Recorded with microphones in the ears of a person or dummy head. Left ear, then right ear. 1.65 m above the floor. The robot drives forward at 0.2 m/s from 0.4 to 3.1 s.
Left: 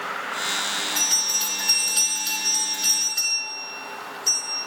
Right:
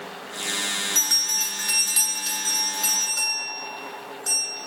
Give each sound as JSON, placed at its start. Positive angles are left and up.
{"t": 0.9, "sound": "a bell", "side_deg": -30, "distance_m": 1.2}